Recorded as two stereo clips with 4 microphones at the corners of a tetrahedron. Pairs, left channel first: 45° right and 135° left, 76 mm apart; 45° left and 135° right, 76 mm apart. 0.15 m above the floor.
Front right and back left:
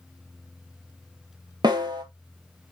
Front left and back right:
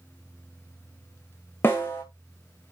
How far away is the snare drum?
About 2 m.